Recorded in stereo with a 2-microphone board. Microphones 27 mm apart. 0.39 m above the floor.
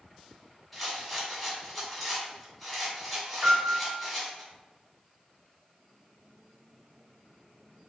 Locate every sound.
0.7 s a rattle: 5° left (ahead or behind), 1.8 m
3.4 s a piano: 20° right (ahead or behind), 0.8 m